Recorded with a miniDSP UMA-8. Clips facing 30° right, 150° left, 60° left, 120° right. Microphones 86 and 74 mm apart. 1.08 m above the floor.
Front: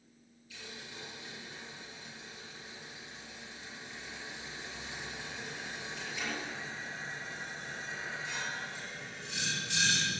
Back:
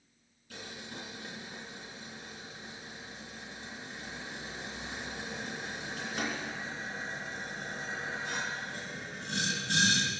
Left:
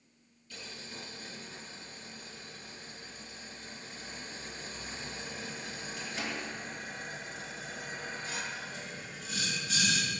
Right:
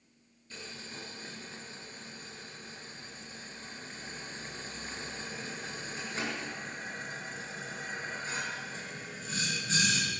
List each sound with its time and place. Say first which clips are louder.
0.5 s boiling: back 4 dB, right 1 dB; 175° right, 4 m